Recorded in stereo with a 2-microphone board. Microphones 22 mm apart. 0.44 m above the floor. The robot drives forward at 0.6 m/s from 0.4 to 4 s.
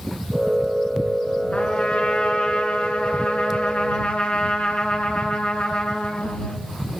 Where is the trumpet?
65° left (ahead or behind), 4.5 m; by 6.6 s 80° left, 4 m.